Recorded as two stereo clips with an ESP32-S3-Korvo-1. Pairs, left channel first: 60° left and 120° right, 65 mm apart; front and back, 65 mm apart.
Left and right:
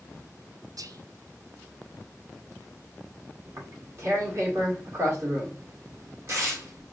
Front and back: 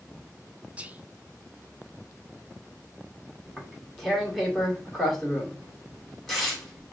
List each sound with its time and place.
0.8 s whispering: 110° right, 0.5 m
3.5 s tearing paper: 85° right, 1.9 m